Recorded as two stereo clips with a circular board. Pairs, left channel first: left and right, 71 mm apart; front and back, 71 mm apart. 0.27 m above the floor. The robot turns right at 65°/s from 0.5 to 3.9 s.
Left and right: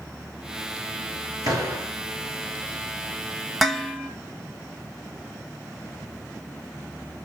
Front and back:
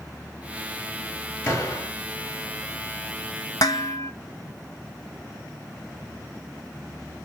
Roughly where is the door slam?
Ahead right.